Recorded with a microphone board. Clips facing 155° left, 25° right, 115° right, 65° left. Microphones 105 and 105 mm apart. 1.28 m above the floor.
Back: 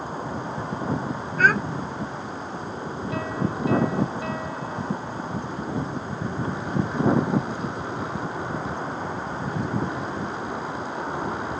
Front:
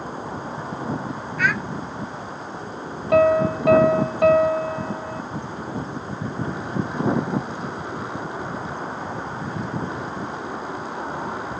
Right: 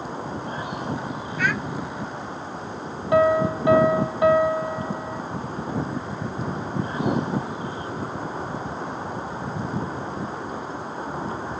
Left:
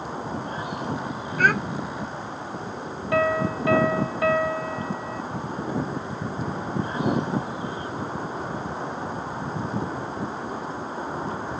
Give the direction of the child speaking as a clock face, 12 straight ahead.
8 o'clock.